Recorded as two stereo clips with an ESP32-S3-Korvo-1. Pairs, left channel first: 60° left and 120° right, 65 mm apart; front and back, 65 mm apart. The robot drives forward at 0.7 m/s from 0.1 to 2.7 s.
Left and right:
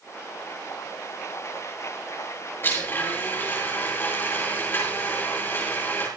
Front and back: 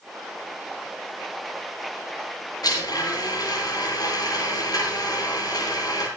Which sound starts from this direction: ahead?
A blender, at 2.6 s.